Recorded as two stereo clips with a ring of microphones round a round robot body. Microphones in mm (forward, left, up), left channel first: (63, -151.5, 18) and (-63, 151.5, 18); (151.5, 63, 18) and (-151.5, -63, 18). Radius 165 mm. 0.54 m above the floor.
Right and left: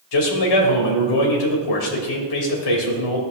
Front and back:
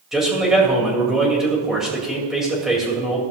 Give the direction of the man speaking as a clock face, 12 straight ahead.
2 o'clock.